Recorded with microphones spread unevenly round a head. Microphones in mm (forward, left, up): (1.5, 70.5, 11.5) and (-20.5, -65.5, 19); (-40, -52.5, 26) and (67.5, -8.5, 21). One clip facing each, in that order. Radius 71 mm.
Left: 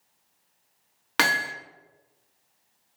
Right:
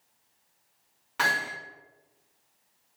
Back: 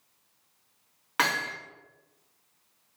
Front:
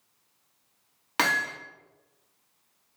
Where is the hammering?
85° left, 2.0 m.